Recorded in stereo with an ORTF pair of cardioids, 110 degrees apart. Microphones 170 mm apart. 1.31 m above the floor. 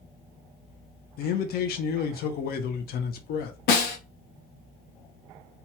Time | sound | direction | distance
1.2 | a man speaking | 65° left | 0.7 m
3.7 | a snare drum | 70° left | 0.8 m